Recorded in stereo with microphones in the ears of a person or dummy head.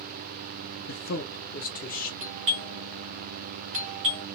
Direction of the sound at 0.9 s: 50° left (ahead or behind).